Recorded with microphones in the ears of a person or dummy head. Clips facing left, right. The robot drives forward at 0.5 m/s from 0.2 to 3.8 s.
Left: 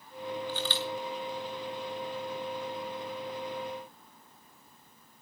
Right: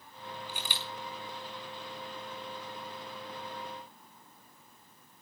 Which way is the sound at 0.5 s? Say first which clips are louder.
Left 9 dB; 20° right (ahead or behind).